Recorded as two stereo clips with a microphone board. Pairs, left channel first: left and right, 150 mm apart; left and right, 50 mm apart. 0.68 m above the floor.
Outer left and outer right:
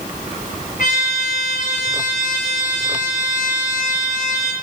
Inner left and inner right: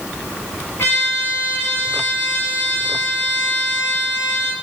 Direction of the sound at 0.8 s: 55° left (ahead or behind).